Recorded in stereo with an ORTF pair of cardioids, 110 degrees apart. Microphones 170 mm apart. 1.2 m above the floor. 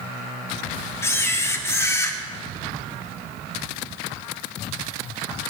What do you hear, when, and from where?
1.0 s a camera shutter: 15° left, 1.5 m